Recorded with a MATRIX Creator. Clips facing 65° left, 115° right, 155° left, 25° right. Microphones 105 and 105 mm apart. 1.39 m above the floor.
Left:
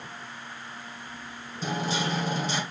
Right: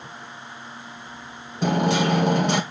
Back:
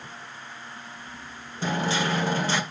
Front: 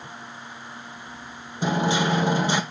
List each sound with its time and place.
1.6 s hammering: 95° right, 1.1 m